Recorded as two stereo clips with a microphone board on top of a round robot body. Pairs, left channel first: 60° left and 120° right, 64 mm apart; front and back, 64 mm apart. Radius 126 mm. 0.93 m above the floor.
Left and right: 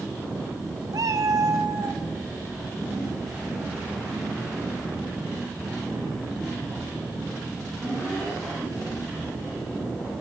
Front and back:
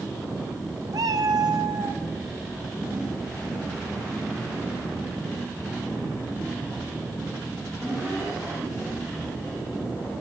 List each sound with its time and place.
0.9 s a cat meowing: 150° right, 1.0 m; by 2.0 s 165° right, 1.7 m